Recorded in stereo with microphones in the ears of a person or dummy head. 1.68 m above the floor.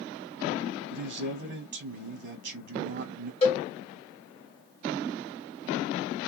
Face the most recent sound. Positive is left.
turn(degrees=30)  # may be behind; listen again after turning